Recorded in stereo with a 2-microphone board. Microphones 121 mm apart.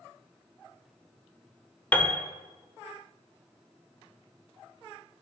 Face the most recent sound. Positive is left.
turn(degrees=15)  # may be behind; listen again after turning